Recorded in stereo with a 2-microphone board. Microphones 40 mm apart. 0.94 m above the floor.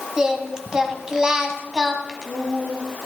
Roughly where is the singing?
Centre.